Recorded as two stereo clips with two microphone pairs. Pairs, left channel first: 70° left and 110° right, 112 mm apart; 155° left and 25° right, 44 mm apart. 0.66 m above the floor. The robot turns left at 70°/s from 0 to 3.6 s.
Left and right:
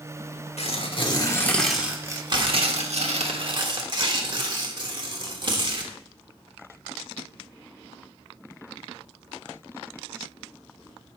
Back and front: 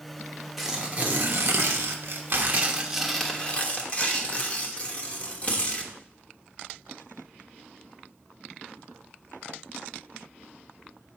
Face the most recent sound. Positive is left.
turn(degrees=-155)